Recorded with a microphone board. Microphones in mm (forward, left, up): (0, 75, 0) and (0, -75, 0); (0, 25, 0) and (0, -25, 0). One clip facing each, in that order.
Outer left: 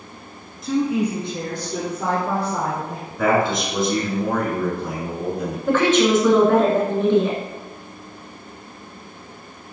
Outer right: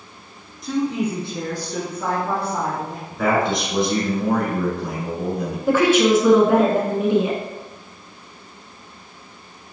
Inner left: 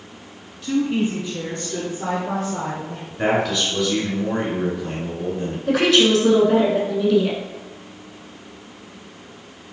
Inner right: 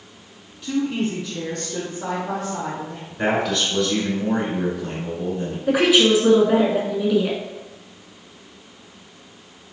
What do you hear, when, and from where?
0.6 s a woman speaking: centre (ahead or behind), 1.3 m; by 3.0 s 25° left (ahead or behind), 3 m
3.1 s a man speaking: centre (ahead or behind), 1.7 m
5.7 s a woman speaking: 10° right (ahead or behind), 1.1 m